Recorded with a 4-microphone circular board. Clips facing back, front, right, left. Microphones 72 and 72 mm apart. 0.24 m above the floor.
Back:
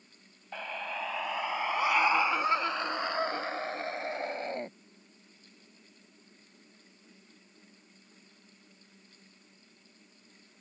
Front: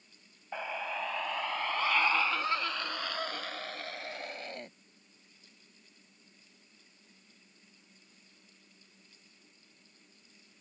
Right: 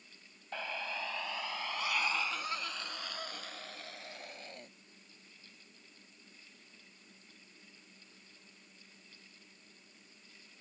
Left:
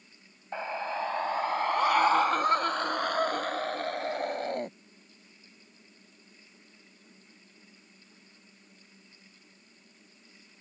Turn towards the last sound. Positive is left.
turn(degrees=120)